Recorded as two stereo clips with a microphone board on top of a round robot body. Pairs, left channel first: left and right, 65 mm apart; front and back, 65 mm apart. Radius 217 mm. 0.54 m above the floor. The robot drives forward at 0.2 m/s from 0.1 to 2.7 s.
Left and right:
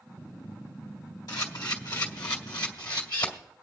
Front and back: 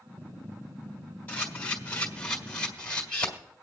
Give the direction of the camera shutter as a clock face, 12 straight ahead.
10 o'clock.